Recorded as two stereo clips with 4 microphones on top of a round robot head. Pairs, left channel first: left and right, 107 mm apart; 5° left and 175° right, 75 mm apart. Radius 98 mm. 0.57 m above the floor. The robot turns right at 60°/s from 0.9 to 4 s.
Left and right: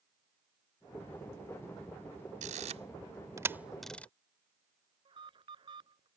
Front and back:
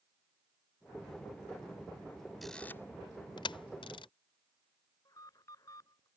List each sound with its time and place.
2.4 s a camera shutter: 85° right; by 4.1 s 10° left
5.0 s an alarm: 50° right